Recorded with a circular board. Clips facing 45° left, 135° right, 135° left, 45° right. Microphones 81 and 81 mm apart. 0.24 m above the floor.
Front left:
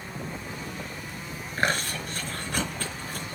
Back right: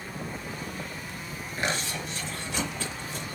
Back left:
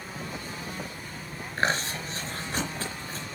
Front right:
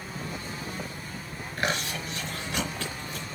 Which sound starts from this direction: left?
Chewing, at 1.6 s.